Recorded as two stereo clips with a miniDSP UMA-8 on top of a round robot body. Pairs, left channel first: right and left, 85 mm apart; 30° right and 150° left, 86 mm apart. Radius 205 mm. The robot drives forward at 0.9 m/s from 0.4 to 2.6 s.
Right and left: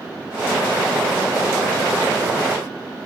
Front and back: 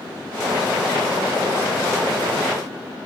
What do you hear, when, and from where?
Only background noise.